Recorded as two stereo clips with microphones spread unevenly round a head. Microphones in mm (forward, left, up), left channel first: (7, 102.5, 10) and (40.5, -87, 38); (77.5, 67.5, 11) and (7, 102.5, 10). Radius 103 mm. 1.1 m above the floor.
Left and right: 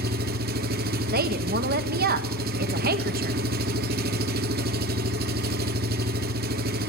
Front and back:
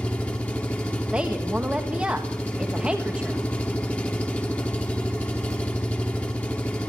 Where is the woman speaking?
125° right, 1.5 m.